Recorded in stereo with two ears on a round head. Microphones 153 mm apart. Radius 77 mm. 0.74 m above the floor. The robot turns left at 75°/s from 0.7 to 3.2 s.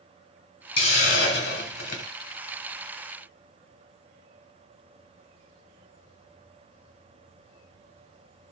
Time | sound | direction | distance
0.8 | a hiss | 145° left | 1.2 m